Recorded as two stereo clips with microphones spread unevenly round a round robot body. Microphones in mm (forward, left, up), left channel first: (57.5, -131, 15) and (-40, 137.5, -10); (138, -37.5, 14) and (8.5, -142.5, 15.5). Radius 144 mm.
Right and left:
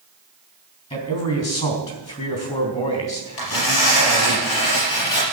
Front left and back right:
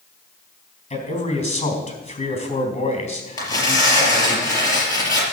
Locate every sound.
0.9 s a man speaking: 5° right, 3.5 m
3.4 s tearing paper: 30° right, 4.5 m